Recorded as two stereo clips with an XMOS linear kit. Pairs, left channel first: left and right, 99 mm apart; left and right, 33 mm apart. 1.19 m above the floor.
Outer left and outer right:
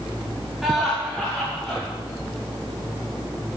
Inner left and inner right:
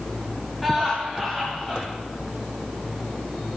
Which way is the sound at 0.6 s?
5° right (ahead or behind).